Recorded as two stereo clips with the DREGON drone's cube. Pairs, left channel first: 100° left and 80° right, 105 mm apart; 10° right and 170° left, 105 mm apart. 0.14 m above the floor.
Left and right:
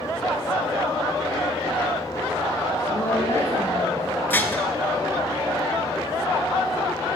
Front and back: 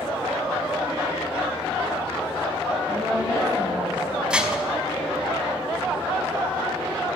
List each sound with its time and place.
2.9 s a woman speaking: 35° left, 4 m
4.3 s dishes clattering: 110° left, 0.7 m